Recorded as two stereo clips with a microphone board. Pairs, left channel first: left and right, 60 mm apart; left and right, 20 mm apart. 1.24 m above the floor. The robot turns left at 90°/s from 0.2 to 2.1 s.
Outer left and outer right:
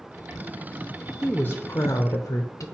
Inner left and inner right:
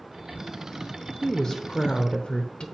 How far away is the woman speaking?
About 0.7 m.